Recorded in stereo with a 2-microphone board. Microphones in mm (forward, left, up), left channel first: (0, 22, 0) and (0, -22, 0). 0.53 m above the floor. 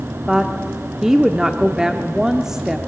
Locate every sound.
0.3 s a woman speaking: 15° right (ahead or behind), 0.8 m